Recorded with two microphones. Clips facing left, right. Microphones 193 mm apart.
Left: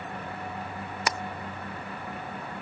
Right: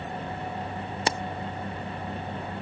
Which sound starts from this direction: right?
Keys jangling, at 1.1 s.